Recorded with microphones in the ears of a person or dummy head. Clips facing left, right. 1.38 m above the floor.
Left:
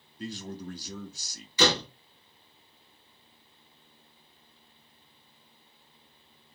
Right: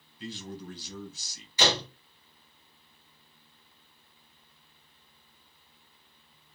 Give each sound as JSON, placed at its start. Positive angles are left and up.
{"t": 0.2, "sound": "a man speaking", "side_deg": 40, "distance_m": 0.8}
{"t": 1.6, "sound": "a door slam", "side_deg": 70, "distance_m": 1.6}